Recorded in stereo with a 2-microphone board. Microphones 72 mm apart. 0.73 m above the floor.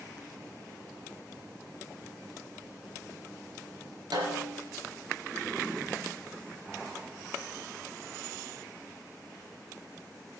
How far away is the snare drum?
About 3 m.